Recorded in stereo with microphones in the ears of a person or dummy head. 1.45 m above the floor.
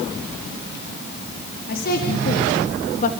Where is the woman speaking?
50° left (ahead or behind), 3.5 m; by 3.1 s 40° left (ahead or behind), 2.5 m.